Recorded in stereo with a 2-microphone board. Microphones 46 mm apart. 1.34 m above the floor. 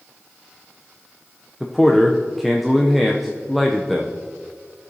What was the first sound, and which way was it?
A man speaking, centre (ahead or behind).